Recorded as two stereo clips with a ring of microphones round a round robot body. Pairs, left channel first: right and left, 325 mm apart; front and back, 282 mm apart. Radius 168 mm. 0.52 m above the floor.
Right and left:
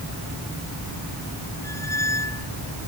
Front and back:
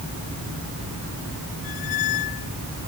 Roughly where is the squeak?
Ahead.